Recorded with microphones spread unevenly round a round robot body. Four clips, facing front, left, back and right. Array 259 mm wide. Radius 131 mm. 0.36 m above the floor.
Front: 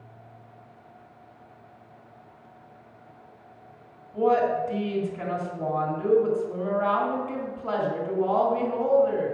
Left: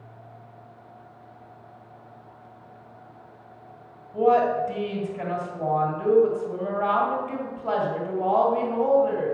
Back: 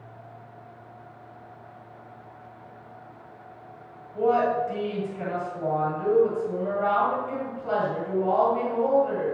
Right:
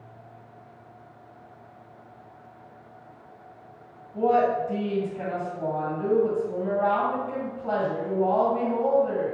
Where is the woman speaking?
50° left, 2.5 m.